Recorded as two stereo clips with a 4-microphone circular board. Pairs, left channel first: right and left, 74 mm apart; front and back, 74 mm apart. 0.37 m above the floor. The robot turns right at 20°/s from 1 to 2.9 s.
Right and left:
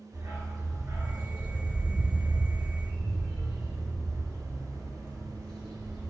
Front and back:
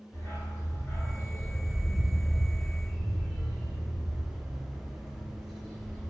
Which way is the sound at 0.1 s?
55° left.